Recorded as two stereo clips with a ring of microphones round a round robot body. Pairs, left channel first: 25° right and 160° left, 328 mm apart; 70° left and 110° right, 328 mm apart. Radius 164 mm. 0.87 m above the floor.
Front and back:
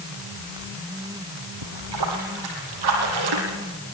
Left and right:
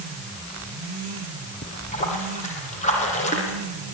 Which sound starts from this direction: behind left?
A splash, at 1.6 s.